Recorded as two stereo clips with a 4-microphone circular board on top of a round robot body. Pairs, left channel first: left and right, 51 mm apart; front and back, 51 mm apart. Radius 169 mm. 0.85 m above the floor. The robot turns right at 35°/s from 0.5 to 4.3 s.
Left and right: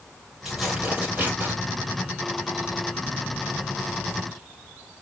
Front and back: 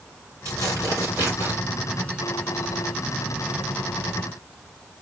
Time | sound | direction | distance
0.5 | tearing paper | 170° right | 4 m